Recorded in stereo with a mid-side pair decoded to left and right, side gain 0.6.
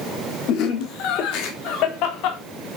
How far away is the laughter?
About 2.5 m.